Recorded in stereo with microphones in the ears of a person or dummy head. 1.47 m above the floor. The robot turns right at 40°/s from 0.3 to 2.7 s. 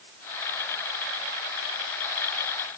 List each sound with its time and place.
Only background noise.